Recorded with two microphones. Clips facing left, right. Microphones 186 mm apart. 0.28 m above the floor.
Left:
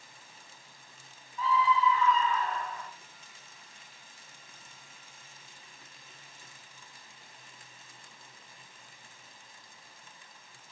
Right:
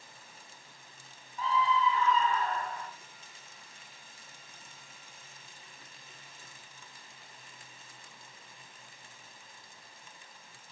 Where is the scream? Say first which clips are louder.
Left 2 dB; 35° right (ahead or behind), 1.4 m.